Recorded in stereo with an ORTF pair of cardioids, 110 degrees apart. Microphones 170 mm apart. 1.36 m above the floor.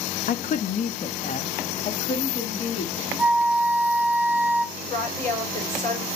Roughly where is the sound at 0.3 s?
Ahead left.